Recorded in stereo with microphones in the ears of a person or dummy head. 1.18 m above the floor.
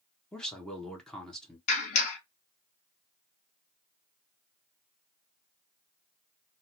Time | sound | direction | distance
0.3 | a man speaking | 5° left (ahead or behind) | 0.7 m
1.7 | a clap | 45° left (ahead or behind) | 1.1 m